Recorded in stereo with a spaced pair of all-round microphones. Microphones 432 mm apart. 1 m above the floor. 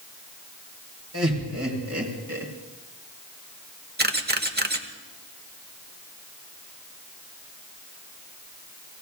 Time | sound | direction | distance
1.1 | laughter | 35° right (ahead or behind) | 4.5 m
4.0 | a camera shutter | 25° right (ahead or behind) | 1.0 m